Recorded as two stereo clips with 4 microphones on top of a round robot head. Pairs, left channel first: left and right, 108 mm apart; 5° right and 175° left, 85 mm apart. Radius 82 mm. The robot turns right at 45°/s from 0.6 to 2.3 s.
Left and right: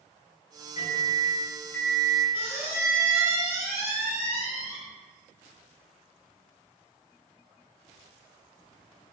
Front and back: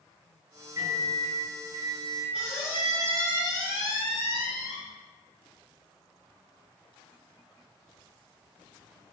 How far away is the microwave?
About 1.3 m.